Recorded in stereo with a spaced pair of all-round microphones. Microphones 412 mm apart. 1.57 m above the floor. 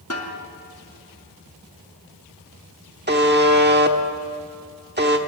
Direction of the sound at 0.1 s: 35° left (ahead or behind).